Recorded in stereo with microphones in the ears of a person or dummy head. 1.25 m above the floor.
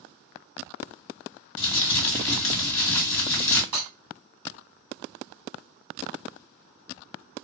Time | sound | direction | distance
1.6 | crumpling | 15° left (ahead or behind) | 1.6 m
3.7 | breaking glass | 25° right (ahead or behind) | 1.5 m